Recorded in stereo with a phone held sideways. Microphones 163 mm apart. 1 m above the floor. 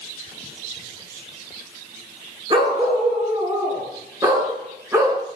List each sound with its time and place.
2.5 s a dog barking: 30° right (ahead or behind), 5 m; by 5.2 s 15° right (ahead or behind), 4.5 m